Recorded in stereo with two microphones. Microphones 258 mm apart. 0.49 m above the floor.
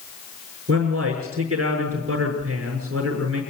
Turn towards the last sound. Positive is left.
turn(degrees=-60)  # may be behind; listen again after turning